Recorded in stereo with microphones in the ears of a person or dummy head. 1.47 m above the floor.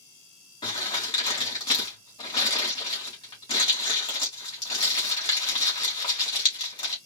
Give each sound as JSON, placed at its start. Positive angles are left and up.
{"t": 0.6, "sound": "crumpling", "side_deg": 30, "distance_m": 2.5}